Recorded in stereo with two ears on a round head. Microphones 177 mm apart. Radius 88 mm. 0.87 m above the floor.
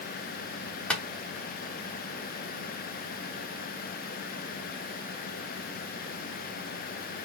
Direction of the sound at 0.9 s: 5° left (ahead or behind).